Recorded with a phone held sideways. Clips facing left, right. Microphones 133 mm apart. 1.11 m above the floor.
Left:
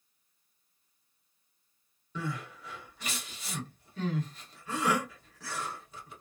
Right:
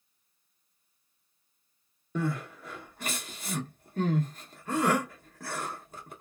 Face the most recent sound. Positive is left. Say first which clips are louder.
# right 6 dB
turn(degrees=-50)  # may be behind; listen again after turning